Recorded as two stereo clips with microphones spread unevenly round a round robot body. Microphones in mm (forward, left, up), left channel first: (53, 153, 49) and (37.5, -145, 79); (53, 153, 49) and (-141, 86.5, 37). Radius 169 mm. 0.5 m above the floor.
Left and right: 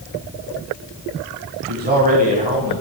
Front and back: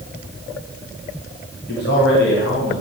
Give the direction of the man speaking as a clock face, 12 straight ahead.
1 o'clock.